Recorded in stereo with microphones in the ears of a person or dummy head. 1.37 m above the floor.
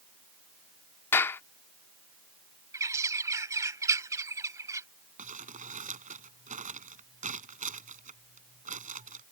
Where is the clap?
10° left (ahead or behind).